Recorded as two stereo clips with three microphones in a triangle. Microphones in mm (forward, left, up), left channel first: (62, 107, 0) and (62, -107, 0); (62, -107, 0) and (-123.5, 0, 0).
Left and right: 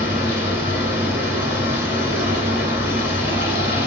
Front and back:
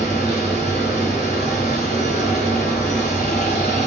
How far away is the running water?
About 1.2 m.